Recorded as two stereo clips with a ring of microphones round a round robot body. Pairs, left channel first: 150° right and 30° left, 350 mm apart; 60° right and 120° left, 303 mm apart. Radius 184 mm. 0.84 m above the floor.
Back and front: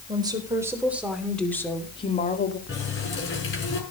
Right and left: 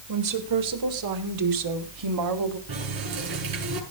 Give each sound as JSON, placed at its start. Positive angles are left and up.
{"t": 0.1, "sound": "a woman speaking", "azimuth_deg": 110, "distance_m": 4.0}
{"t": 2.7, "sound": "a running tap", "azimuth_deg": 150, "distance_m": 6.5}